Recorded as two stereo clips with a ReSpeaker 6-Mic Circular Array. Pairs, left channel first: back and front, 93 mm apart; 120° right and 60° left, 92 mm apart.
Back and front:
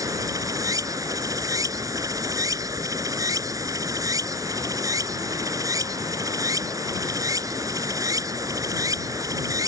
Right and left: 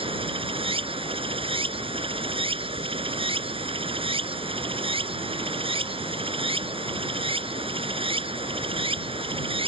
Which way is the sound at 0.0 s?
50° left.